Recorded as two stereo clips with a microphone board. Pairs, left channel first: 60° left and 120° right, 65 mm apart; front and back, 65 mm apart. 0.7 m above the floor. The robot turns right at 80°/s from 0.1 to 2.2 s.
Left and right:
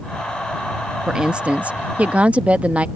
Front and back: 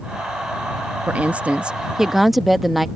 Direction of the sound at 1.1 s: 175° left.